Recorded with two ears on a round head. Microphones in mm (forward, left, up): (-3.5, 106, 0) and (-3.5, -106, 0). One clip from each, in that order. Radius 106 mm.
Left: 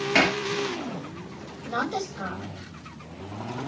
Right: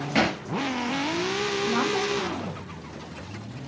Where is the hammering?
45° left (ahead or behind), 5 m.